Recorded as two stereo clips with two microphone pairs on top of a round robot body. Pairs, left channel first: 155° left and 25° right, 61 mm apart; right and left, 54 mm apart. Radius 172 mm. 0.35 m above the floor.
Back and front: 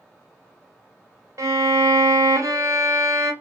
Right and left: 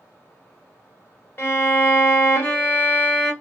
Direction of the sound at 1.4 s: 45° right.